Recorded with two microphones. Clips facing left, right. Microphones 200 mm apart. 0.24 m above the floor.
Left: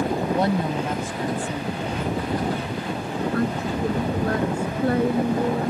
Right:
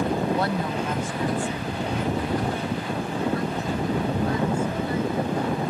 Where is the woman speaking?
20° left (ahead or behind); by 5.7 s 70° left (ahead or behind).